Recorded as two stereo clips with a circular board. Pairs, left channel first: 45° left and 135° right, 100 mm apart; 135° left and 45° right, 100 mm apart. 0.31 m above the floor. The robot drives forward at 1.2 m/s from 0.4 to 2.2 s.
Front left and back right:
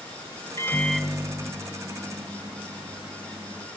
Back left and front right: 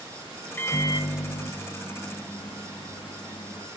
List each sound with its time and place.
0.6 s a microwave: 80° left, 0.7 m; by 3.7 s 170° left, 2 m